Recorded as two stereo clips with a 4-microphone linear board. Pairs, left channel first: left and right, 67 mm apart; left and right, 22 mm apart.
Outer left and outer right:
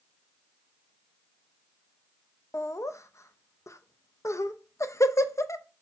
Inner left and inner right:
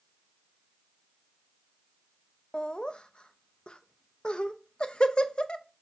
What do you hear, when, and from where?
2.5 s laughter: 45° left (ahead or behind), 0.5 m